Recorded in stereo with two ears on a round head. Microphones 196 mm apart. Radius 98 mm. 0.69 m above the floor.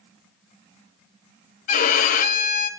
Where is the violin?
35° left (ahead or behind), 0.7 m.